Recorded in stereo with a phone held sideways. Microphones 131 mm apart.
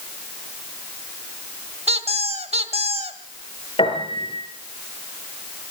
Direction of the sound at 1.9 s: 55° right (ahead or behind).